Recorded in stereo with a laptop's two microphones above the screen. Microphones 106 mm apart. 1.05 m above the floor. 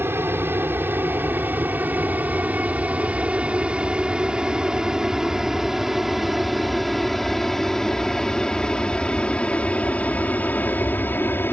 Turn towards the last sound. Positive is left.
turn(degrees=20)  # may be behind; listen again after turning